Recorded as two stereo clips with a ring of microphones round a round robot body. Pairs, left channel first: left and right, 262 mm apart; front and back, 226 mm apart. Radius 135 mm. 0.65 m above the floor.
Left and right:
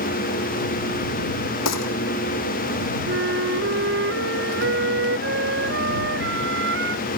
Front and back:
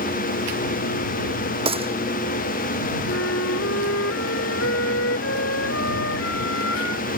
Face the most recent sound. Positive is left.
turn(degrees=-45)